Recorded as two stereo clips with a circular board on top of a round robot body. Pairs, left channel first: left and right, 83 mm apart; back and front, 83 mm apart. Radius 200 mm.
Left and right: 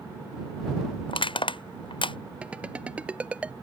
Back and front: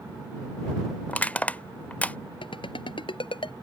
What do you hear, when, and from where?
1.1 s crushing: 105° left
2.4 s a ringtone: 165° right